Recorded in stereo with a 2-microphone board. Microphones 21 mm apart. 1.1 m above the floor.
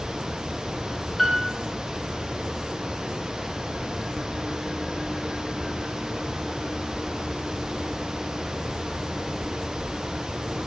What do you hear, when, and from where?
1.2 s a piano: centre (ahead or behind), 0.6 m